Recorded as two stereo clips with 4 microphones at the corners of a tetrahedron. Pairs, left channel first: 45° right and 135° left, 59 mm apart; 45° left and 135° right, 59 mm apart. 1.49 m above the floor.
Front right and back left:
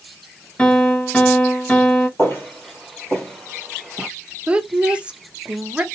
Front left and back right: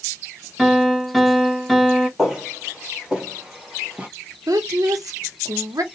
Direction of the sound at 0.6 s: 50° right.